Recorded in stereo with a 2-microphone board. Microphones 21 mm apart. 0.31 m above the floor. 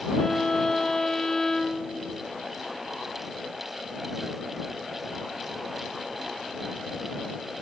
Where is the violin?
20° left (ahead or behind).